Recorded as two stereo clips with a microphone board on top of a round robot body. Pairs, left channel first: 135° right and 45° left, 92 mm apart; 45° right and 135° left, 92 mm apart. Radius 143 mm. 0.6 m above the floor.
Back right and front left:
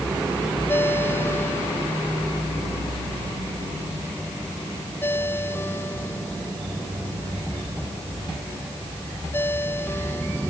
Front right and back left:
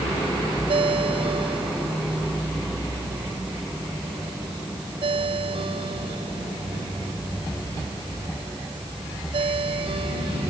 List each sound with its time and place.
0.7 s a ringtone: 160° left